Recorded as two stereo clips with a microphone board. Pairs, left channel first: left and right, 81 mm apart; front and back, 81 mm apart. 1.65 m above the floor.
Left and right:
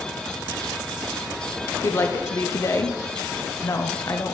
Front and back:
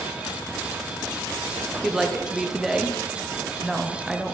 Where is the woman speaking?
100° left, 0.5 m.